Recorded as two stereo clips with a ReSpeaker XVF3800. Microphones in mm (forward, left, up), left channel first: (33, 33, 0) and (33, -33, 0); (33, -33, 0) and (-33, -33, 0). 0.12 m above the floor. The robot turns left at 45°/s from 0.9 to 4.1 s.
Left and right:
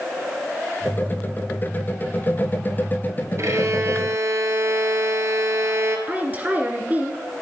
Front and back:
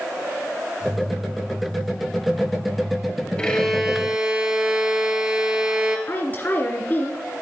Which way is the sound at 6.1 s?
40° right.